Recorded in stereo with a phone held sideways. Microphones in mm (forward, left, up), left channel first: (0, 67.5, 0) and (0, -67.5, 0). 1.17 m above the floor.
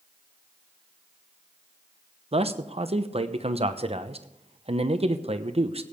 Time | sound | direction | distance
2.3 | a man speaking | 50° right (ahead or behind) | 0.8 m